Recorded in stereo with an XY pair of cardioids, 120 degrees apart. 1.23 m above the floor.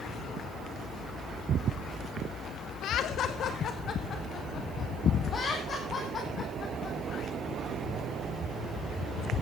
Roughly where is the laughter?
Ahead left.